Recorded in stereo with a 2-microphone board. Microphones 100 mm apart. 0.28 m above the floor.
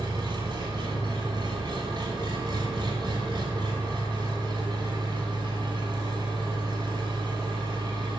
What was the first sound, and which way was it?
An engine running, 50° right (ahead or behind).